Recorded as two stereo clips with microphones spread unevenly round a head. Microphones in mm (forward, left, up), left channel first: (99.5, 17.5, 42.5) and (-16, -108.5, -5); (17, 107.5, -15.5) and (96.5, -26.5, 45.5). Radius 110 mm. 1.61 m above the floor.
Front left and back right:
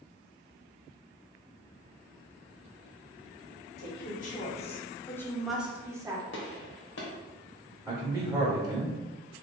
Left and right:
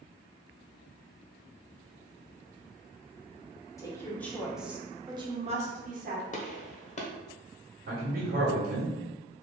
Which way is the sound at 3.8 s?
40° left.